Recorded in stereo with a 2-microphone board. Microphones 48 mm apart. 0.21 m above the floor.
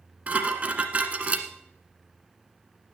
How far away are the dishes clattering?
About 1.4 m.